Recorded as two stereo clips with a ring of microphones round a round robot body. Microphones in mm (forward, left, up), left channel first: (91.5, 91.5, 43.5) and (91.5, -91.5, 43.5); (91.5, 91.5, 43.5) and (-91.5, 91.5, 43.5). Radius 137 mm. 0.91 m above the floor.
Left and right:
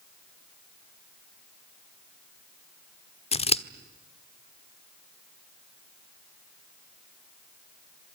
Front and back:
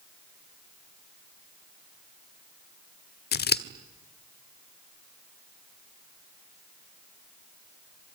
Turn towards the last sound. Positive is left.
turn(degrees=30)